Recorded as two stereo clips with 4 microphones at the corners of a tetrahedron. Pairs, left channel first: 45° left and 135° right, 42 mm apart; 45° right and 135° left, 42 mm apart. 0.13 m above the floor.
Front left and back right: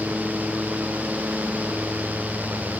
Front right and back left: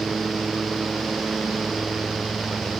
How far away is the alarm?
No alarm in this recording.